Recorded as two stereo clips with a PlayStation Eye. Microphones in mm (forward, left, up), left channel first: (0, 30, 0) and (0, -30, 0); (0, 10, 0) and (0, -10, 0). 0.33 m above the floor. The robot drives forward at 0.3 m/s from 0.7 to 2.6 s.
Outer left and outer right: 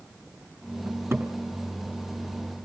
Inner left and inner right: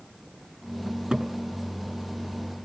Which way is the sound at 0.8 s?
45° right (ahead or behind).